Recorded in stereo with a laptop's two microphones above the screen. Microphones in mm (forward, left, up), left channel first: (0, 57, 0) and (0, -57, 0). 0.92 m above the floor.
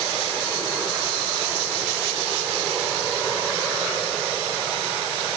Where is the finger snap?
I don't hear a finger snap.